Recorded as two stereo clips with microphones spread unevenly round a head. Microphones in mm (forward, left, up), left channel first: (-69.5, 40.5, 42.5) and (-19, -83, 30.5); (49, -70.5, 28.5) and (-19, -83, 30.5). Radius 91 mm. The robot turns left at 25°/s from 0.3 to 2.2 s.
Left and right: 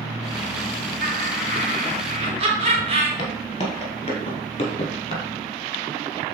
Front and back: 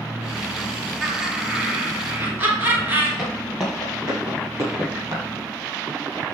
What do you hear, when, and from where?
1.0 s laughter: 80° right, 2.5 m; by 3.1 s 110° right, 2.5 m
3.2 s footsteps: 105° left, 1.5 m; by 5.2 s 140° left, 2.5 m